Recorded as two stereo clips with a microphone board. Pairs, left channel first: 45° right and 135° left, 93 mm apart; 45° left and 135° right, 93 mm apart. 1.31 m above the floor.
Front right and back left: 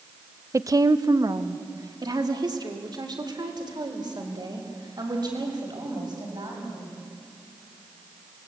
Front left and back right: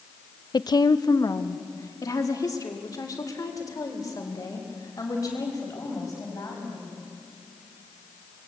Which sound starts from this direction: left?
A woman speaking, at 0.5 s.